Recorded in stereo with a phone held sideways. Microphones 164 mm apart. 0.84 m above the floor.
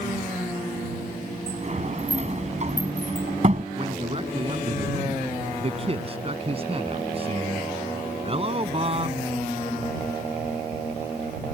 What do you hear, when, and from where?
1.5 s a sliding door: 45° right (ahead or behind)
3.8 s a man speaking: 35° right (ahead or behind)